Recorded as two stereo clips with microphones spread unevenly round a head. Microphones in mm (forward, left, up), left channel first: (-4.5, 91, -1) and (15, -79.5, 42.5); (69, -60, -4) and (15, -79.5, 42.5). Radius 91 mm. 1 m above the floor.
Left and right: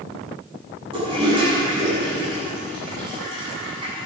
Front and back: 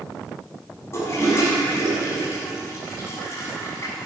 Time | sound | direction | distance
0.9 | a toilet flushing | 25° right | 7.5 m